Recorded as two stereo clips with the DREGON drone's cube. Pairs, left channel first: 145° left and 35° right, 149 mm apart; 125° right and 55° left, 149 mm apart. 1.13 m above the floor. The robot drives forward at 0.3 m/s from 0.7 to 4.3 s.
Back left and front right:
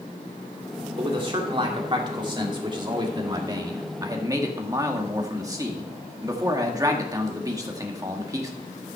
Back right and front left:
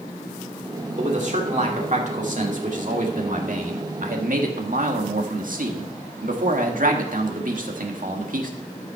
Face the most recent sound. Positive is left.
turn(degrees=35)